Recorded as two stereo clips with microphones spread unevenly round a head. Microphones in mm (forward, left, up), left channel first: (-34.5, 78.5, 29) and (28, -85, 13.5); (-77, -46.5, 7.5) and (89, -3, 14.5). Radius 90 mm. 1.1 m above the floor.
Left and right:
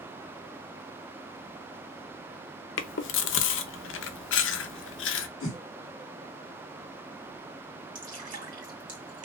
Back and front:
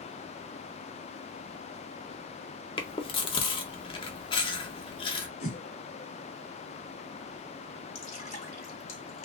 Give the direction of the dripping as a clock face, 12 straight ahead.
4 o'clock.